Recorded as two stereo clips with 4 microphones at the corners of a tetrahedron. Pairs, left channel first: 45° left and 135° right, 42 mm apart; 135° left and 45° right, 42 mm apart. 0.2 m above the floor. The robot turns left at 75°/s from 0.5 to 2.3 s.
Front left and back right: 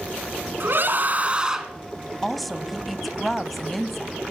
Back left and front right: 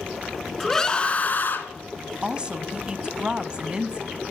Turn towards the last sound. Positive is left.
turn(degrees=-40)